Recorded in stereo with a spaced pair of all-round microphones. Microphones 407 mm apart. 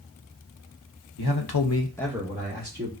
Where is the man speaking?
70° left (ahead or behind), 1.0 m; by 2.9 s 30° right (ahead or behind), 1.9 m.